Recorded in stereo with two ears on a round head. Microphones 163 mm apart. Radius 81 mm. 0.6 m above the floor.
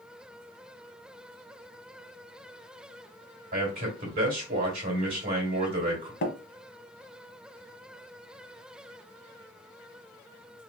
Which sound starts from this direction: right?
A man speaking, at 3.5 s.